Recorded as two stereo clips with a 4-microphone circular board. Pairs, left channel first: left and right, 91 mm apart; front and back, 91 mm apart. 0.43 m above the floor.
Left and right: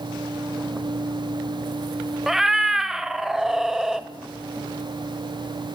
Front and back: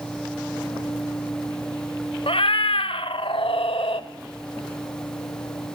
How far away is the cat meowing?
About 0.6 m.